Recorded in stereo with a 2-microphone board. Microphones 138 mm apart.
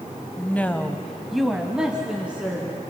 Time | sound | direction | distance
0.4 | a woman speaking | 15° left (ahead or behind) | 1.3 m